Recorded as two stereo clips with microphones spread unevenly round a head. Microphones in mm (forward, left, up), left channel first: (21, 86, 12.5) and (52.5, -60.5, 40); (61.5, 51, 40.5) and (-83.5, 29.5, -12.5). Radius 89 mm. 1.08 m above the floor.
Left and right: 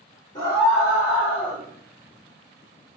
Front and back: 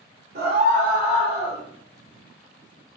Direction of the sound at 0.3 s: 175° left.